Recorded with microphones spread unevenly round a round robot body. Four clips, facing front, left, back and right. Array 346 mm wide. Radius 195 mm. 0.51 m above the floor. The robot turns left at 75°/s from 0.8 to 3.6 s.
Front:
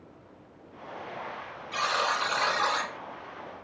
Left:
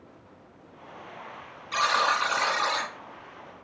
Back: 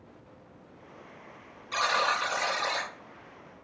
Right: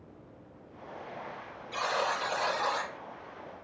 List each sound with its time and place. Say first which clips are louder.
1.7 s a buzzer: left 6 dB, back 1 dB; 115° left, 2.0 m; by 2.9 s 25° left, 2.0 m